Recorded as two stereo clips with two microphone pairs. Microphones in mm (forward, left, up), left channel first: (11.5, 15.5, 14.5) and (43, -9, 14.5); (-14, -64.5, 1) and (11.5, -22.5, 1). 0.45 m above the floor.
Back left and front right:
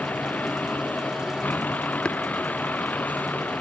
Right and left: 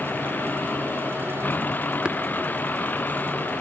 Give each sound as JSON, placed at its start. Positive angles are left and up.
{"t": 0.0, "sound": "a vehicle", "azimuth_deg": -175}
{"t": 2.0, "sound": "tapping", "azimuth_deg": 100}